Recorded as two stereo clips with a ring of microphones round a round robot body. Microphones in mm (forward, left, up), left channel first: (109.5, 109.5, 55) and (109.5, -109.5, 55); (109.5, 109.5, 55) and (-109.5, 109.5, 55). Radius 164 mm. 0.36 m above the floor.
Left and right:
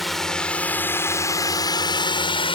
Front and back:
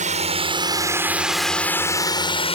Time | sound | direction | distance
0.0 | a drone | straight behind | ?